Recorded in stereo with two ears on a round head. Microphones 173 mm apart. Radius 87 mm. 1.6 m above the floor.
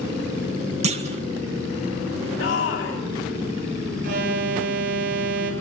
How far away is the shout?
About 3 m.